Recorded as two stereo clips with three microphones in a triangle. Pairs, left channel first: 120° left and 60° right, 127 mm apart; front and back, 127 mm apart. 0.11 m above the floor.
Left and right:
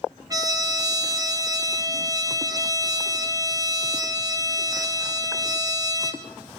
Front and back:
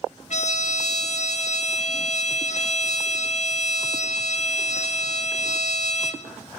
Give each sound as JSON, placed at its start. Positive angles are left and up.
{"t": 0.3, "sound": "a trumpet", "azimuth_deg": 0, "distance_m": 1.1}